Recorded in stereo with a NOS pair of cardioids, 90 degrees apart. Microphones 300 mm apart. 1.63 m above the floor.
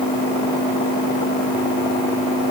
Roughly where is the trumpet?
I don't hear a trumpet.